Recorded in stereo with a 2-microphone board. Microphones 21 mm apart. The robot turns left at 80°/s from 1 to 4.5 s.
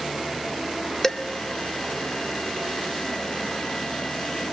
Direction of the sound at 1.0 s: 20° left (ahead or behind).